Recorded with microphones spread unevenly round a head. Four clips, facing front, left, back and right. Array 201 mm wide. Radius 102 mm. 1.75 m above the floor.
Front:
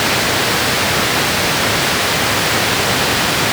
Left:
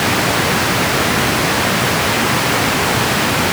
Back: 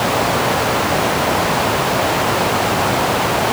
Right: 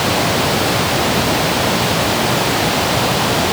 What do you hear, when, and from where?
Only background noise.